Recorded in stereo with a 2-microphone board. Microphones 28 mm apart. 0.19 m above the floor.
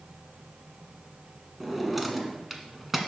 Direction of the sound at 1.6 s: 5° right (ahead or behind).